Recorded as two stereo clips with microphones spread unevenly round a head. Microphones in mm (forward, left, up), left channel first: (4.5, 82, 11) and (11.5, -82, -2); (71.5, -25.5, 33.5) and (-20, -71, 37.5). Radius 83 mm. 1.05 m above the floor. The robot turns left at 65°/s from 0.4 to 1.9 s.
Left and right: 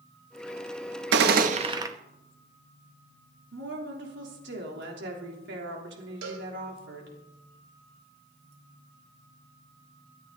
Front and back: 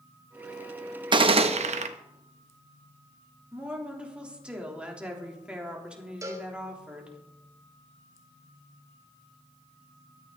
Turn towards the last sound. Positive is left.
turn(degrees=-95)